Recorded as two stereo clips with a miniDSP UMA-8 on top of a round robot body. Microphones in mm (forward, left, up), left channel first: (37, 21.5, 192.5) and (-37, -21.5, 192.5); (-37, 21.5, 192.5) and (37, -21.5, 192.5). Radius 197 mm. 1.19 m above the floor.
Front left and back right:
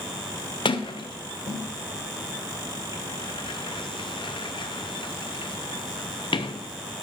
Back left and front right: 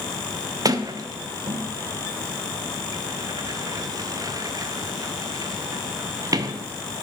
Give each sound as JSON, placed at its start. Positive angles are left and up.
{"t": 0.7, "sound": "a sliding door", "azimuth_deg": 15, "distance_m": 0.7}